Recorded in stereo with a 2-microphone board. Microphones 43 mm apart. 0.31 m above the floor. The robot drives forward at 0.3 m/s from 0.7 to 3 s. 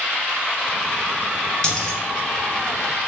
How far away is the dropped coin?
About 1.2 m.